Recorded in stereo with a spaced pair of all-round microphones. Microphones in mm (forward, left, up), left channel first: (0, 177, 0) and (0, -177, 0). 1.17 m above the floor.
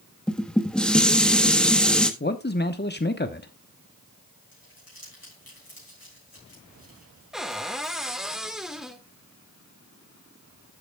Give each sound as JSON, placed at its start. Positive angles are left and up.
{"t": 0.3, "sound": "dishes clattering", "side_deg": 0, "distance_m": 1.2}
{"t": 2.2, "sound": "a man speaking", "side_deg": 30, "distance_m": 0.9}
{"t": 4.5, "sound": "crumpling", "side_deg": 80, "distance_m": 6.5}
{"t": 7.3, "sound": "a cupboard door", "side_deg": 0, "distance_m": 1.4}